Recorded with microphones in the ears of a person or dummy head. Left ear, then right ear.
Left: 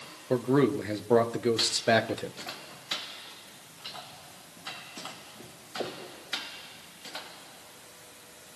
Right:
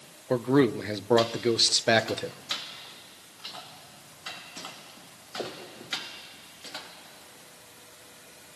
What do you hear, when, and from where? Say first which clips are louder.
0.3 s a man speaking: right 2 dB; 15° right (ahead or behind), 1.7 m